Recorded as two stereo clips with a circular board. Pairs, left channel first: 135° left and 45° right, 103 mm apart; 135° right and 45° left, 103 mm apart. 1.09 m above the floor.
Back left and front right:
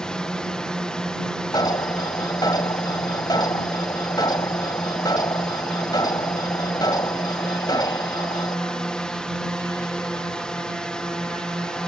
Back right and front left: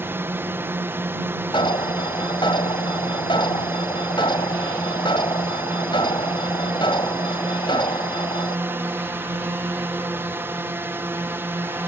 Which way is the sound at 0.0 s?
65° left.